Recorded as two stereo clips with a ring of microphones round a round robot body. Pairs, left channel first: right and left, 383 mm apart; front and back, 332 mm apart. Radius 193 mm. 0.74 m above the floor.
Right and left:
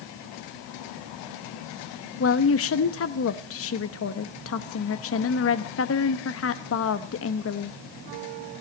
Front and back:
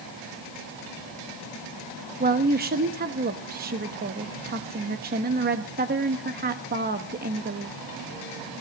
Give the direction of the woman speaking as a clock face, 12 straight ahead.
4 o'clock.